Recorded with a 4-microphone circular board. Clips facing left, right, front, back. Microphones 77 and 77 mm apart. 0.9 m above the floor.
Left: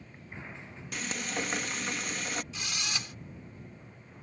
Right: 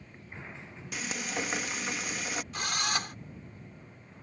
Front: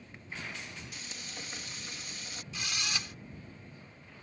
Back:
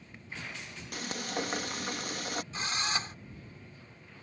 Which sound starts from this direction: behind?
Frying, at 0.9 s.